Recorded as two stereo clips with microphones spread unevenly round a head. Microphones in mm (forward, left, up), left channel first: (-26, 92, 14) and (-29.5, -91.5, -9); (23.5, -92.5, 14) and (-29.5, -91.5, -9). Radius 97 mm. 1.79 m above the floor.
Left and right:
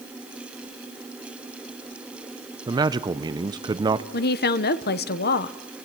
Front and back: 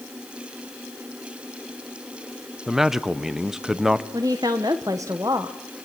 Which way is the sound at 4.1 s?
110° left.